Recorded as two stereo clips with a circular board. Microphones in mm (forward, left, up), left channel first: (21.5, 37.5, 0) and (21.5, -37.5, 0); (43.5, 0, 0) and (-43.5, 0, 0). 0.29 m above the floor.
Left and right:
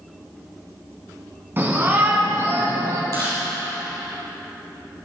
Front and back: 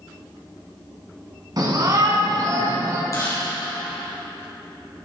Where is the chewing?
55° right, 5 m.